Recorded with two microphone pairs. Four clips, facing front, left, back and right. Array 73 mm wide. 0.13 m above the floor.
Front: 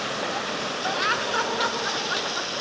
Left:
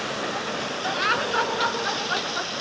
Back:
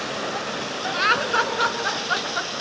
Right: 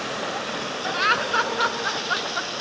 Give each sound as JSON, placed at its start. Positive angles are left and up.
{"t": 0.9, "sound": "laughter", "azimuth_deg": -140, "distance_m": 1.1}